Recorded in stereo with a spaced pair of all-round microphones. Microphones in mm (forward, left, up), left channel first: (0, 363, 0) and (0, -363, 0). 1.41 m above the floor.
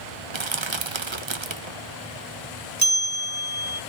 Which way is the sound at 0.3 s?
40° right (ahead or behind).